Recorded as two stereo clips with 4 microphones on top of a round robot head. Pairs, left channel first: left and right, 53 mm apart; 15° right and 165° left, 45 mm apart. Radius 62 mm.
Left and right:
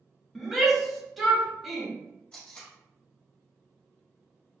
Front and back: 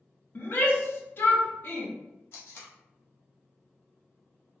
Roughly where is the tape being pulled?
Ahead.